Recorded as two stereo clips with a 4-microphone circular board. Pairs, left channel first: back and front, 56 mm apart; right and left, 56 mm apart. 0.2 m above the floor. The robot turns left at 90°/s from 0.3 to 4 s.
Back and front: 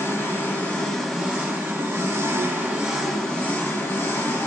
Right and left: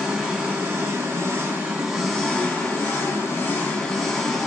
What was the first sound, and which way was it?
An engine running, 165° left.